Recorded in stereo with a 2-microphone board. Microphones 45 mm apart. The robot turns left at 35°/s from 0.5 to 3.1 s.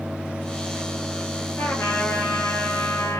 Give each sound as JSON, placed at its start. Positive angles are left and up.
{"t": 1.6, "sound": "a trumpet", "azimuth_deg": 120, "distance_m": 8.0}